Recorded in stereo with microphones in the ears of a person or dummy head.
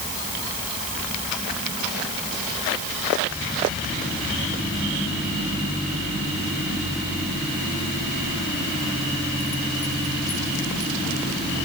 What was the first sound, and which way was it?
Only background noise.